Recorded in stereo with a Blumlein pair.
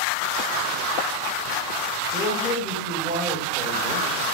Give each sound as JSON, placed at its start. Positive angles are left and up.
{"t": 2.1, "sound": "a man speaking", "azimuth_deg": 15, "distance_m": 5.0}